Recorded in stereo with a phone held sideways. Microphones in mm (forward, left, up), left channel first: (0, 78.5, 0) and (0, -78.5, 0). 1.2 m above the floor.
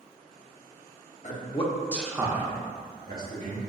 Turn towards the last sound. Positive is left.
turn(degrees=-70)  # may be behind; listen again after turning